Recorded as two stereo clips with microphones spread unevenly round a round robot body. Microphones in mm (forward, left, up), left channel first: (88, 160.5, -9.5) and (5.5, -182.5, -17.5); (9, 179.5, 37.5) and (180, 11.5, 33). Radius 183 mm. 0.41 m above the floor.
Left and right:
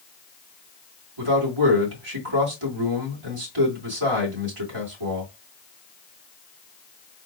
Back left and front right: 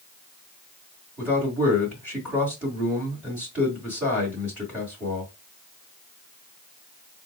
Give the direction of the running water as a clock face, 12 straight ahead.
No running water in this recording.